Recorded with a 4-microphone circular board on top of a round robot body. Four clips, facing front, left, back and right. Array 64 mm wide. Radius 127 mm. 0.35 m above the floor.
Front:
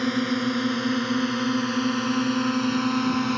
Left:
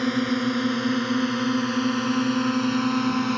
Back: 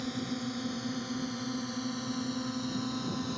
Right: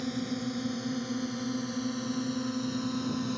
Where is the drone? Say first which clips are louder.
Left 10 dB, front 11 dB; 50° left.